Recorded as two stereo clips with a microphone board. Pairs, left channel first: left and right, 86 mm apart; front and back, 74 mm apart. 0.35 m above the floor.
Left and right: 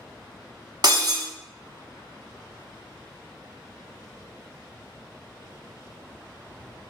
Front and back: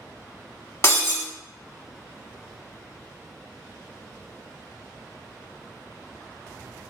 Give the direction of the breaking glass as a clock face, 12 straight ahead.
2 o'clock.